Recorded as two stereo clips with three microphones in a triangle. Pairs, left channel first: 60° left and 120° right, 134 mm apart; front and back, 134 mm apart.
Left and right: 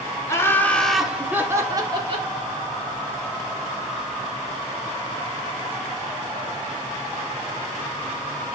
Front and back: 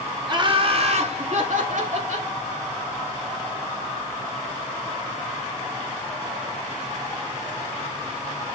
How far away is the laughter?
About 2.5 m.